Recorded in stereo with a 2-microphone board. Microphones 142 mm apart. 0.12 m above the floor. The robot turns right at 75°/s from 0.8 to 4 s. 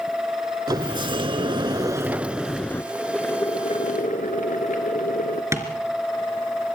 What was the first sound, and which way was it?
A sliding door, 125° right.